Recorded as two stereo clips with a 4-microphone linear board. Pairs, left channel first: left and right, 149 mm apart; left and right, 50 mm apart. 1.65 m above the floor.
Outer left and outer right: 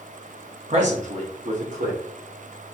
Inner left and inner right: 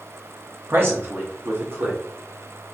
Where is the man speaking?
50° right (ahead or behind), 0.9 m; by 2.0 s 65° right (ahead or behind), 1.5 m.